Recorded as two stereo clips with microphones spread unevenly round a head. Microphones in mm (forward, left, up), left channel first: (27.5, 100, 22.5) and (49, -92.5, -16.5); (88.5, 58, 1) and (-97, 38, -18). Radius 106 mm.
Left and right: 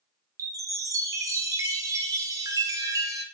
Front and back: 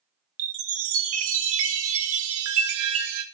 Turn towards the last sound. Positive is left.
turn(degrees=-165)